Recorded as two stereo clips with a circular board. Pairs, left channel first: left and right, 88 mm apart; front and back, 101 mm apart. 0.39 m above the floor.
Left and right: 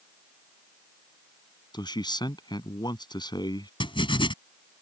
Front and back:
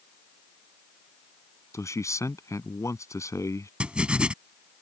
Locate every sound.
1.7 s a man speaking: 60° left
3.8 s writing: 100° left